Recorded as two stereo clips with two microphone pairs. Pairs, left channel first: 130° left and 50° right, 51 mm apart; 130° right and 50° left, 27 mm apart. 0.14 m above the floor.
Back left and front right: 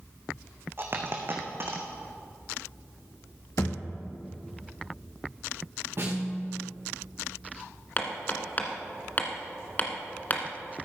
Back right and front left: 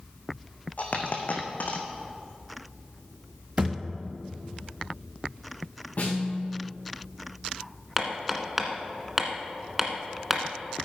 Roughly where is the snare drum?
Right.